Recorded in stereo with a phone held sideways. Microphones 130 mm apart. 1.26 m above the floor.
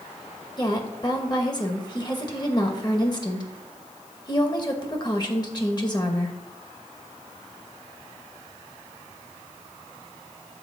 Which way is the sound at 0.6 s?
30° left (ahead or behind).